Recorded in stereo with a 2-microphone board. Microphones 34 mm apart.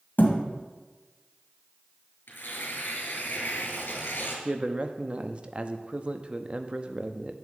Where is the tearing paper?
75° left (ahead or behind), 2 m.